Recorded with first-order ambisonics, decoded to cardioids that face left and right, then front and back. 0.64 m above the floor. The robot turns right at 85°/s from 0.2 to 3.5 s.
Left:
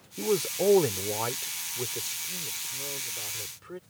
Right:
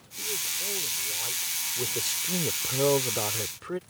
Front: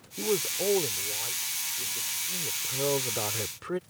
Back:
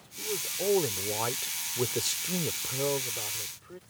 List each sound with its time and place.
0.2 s a man speaking: 45° left; by 3.8 s 30° right